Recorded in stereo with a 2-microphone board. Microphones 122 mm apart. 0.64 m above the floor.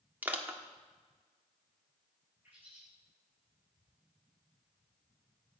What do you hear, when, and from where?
0.2 s crushing: 15° right (ahead or behind), 1.5 m
2.4 s a bird: 15° right (ahead or behind), 7.5 m